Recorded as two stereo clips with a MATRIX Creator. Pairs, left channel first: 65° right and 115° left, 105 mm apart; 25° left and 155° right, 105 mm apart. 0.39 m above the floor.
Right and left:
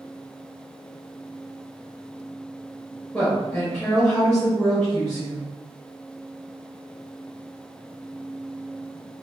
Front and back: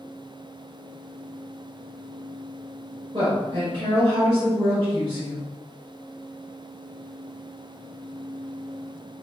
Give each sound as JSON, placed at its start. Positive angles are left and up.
{"t": 3.1, "sound": "a woman speaking", "azimuth_deg": -150, "distance_m": 1.4}